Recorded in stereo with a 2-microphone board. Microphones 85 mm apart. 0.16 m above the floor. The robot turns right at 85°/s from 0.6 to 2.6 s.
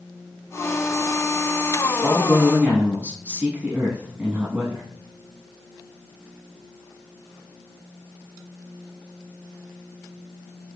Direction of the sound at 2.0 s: 10° right (ahead or behind).